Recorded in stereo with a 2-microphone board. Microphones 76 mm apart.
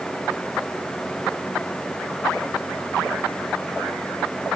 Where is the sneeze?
No sneeze in this recording.